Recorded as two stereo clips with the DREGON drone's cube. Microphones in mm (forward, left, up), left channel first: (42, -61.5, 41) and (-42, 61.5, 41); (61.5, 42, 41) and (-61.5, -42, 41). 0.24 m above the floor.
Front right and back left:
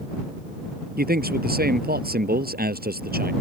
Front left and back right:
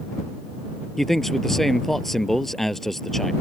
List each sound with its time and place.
1.0 s a man speaking: 125° left